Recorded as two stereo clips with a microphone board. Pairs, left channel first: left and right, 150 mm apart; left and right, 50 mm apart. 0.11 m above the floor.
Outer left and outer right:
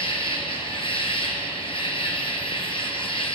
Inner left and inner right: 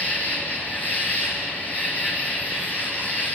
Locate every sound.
0.0 s an insect: 40° left (ahead or behind), 0.9 m